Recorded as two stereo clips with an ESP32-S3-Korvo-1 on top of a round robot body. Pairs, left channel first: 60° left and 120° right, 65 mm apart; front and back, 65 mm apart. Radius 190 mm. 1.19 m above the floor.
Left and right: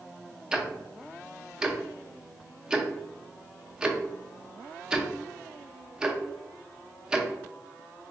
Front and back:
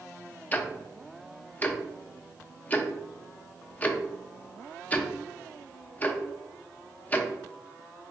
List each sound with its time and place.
0.5 s ticking: 50° right, 0.5 m